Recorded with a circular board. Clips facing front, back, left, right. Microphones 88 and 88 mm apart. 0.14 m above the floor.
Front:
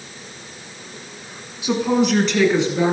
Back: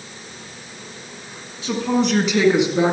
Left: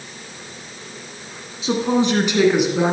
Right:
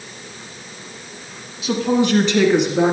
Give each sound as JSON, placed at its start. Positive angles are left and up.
{"t": 1.6, "sound": "a woman speaking", "azimuth_deg": 60, "distance_m": 1.9}